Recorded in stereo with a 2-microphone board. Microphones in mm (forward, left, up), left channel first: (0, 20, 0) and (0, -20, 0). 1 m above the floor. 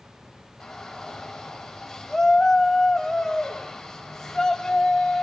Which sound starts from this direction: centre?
A shout, at 0.6 s.